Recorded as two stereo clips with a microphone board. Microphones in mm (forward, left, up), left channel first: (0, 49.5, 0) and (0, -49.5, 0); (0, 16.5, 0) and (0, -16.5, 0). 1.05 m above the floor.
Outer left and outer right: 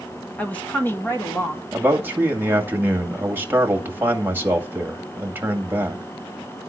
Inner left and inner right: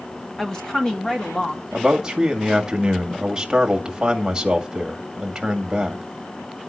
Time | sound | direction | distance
0.4 | a woman speaking | 15° left (ahead or behind) | 1.6 m
1.7 | a man speaking | 20° right (ahead or behind) | 2.0 m